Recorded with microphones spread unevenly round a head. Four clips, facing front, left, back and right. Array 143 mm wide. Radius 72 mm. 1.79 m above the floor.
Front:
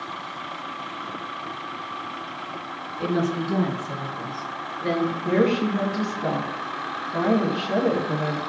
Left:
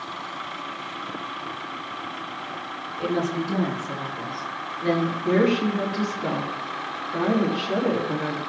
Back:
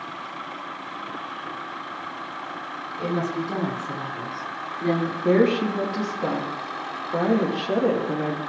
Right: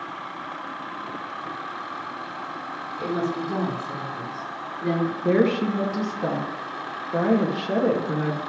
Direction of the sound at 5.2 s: 135° right.